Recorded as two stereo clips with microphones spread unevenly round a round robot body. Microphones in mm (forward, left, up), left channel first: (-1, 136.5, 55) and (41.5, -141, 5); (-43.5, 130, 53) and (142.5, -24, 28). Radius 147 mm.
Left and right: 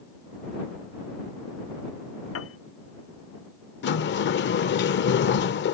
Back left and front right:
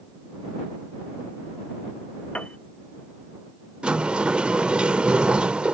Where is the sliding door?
50° left.